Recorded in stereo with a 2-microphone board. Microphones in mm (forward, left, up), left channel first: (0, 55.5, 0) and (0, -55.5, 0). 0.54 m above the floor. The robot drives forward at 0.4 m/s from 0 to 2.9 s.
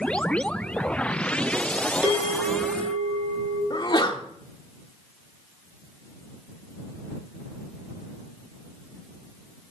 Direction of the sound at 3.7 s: 40° left (ahead or behind).